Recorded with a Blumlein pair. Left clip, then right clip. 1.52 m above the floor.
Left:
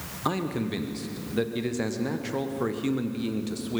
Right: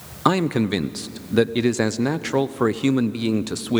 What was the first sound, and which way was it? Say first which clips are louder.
A man speaking: right 9 dB; 60° right.